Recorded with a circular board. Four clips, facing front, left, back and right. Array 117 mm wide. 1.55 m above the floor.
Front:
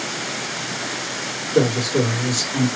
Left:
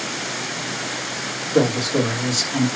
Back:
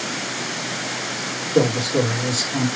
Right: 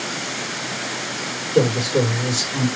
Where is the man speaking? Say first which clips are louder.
Even, even; 100° left, 2 m.